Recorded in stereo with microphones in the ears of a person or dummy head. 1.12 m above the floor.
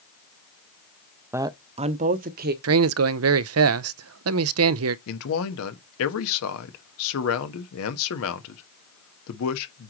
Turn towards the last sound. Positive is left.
turn(degrees=80)